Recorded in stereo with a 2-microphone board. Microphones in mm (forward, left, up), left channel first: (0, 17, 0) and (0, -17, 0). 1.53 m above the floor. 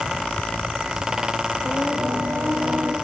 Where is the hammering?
I don't hear hammering.